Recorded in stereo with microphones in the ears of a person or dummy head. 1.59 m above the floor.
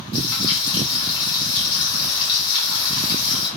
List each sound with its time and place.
0.1 s frying: 25° left (ahead or behind), 1.5 m